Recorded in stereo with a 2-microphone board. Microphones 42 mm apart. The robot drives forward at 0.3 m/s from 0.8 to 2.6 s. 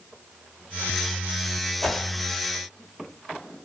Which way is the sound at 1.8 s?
10° left (ahead or behind).